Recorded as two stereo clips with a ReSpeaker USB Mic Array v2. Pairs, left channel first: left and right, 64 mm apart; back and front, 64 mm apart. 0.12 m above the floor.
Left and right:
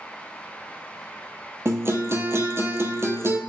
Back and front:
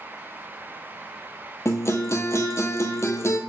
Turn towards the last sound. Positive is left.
turn(degrees=-140)